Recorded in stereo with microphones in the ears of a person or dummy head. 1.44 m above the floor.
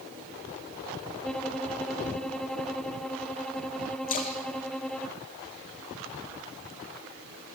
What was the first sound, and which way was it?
A violin, 5° left (ahead or behind).